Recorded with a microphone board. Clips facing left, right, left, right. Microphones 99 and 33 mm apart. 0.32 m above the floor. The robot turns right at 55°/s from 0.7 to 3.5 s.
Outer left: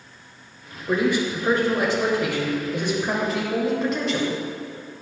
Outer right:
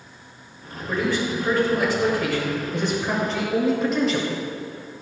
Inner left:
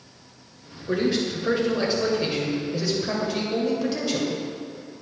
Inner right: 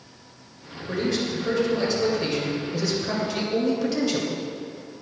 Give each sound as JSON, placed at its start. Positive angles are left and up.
{"t": 0.9, "sound": "a man speaking", "side_deg": 15, "distance_m": 1.0}